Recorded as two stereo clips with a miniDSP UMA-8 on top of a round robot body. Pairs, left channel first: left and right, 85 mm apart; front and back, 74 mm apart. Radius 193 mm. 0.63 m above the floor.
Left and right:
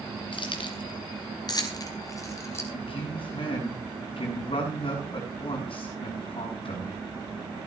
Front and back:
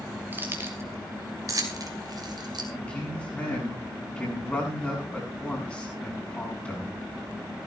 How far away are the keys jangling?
About 2.5 m.